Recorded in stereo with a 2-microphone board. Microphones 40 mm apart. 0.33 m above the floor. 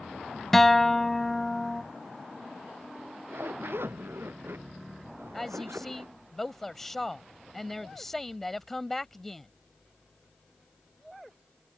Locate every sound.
0.5 s a guitar: 5° left (ahead or behind)
3.0 s a zipper: 75° right (ahead or behind)
5.3 s a woman speaking: 10° left (ahead or behind)